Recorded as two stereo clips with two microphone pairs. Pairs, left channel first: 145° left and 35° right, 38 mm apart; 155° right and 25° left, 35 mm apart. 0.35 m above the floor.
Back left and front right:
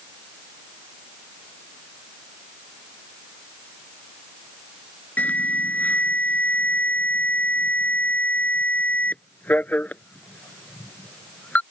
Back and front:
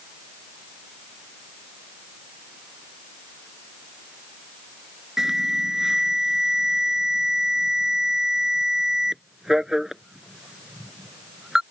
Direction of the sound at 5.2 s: 100° left.